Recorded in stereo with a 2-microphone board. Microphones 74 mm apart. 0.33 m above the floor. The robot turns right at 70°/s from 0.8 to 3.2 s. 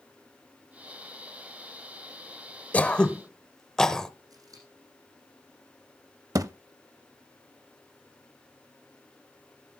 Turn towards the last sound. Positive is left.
turn(degrees=-50)  # may be behind; listen again after turning